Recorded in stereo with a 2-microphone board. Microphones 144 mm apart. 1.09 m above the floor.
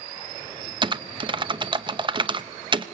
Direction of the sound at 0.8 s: 35° right (ahead or behind).